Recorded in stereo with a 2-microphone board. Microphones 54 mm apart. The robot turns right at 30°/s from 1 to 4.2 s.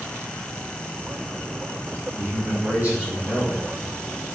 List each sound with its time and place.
2.1 s a man speaking: 110° right, 1.9 m; by 3.6 s 65° right, 1.9 m